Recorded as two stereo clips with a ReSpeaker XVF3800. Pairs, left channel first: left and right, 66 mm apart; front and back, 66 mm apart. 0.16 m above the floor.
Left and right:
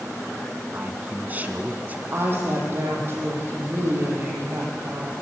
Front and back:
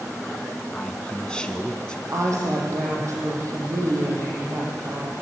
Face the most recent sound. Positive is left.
turn(degrees=-140)